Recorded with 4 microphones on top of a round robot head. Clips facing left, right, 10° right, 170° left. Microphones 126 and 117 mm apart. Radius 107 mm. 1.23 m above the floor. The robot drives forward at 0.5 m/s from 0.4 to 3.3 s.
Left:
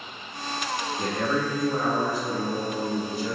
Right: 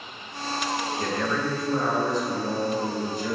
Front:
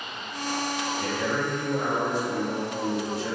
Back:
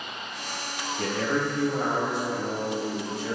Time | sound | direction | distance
1.0 | a man speaking | 160° left | 0.7 m